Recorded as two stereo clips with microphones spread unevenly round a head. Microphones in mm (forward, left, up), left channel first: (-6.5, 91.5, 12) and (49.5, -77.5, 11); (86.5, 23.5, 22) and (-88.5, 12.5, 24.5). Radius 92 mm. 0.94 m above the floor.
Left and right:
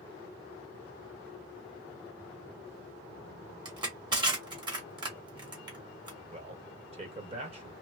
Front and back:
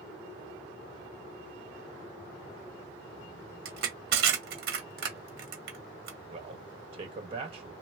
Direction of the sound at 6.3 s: 125° right.